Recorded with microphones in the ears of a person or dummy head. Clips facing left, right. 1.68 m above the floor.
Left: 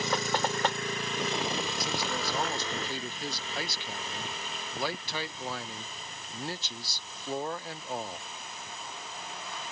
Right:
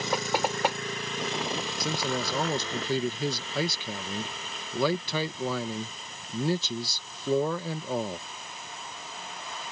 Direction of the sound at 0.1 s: 15° right (ahead or behind).